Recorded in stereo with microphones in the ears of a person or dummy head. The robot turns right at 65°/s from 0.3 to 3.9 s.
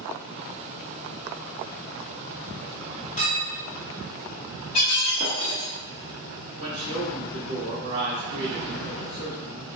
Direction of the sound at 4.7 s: 35° left (ahead or behind).